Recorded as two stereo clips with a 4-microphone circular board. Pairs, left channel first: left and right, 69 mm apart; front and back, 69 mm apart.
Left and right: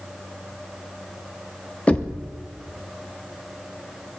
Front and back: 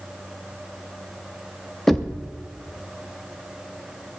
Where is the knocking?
75° left, 0.6 m.